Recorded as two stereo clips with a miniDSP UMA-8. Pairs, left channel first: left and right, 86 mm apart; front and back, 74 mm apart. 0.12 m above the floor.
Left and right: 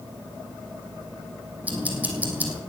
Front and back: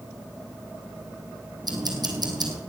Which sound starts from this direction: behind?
Ticking, at 1.6 s.